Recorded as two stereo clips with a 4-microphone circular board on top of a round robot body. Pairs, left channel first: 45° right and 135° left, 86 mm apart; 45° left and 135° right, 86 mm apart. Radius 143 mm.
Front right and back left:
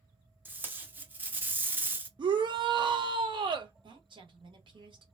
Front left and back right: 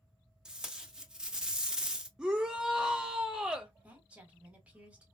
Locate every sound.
0.5 s tape being pulled: 155° left, 1.0 m
2.2 s a shout: 145° left, 0.5 m
3.8 s a woman speaking: 150° left, 1.3 m